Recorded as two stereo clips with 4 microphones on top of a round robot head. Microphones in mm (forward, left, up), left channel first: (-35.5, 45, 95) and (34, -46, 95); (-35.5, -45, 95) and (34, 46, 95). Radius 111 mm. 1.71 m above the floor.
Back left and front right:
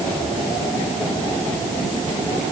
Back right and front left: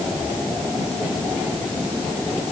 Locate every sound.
Only background noise.